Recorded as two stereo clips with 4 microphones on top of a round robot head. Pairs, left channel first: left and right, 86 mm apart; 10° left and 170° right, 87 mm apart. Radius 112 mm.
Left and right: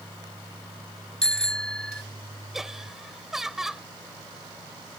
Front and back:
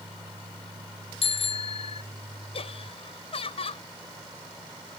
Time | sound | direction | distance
1.2 | a bicycle bell | 10° left | ?
2.5 | laughter | 5° right | ?